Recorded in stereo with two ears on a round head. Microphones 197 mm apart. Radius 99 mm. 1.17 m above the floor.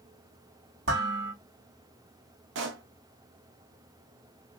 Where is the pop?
60° right (ahead or behind), 0.7 m.